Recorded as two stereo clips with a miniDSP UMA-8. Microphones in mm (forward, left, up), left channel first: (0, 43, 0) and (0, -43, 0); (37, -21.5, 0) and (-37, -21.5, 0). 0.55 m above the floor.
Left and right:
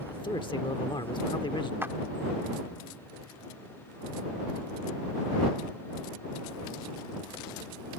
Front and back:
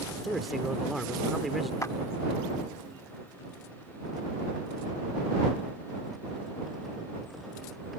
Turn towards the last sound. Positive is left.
turn(degrees=-35)